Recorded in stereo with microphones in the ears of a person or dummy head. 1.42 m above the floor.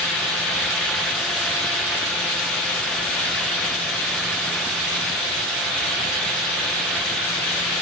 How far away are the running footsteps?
I don't hear running footsteps.